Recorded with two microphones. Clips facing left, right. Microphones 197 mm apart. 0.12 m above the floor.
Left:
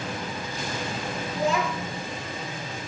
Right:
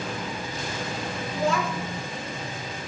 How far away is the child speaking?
About 4 m.